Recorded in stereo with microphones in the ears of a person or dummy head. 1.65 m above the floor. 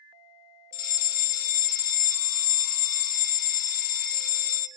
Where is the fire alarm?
50° left (ahead or behind), 1.2 m.